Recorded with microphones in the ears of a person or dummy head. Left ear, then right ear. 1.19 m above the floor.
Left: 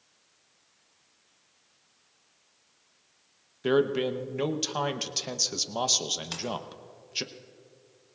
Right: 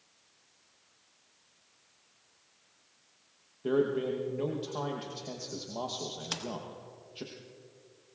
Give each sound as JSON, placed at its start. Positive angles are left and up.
{"t": 3.6, "sound": "a man speaking", "side_deg": 70, "distance_m": 0.8}
{"t": 6.2, "sound": "a splash", "side_deg": -5, "distance_m": 1.5}